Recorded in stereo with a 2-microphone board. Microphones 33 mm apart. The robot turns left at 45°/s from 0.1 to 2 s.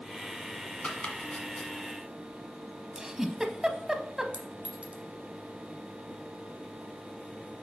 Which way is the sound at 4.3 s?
40° right (ahead or behind).